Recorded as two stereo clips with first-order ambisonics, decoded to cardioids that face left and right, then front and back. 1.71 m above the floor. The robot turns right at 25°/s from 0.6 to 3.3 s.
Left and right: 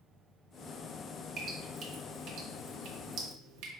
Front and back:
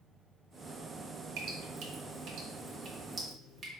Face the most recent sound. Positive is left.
turn(degrees=-110)